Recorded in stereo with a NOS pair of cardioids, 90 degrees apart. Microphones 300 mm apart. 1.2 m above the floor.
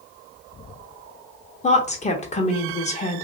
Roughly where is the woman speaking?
Ahead left.